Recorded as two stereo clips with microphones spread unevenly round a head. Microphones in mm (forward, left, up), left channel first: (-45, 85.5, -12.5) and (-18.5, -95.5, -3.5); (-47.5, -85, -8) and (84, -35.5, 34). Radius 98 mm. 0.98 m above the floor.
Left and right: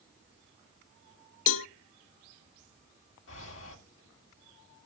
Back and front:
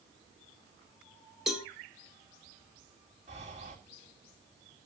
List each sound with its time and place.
1.5 s a cowbell: 105° left, 0.6 m
3.3 s breathing: 80° left, 2 m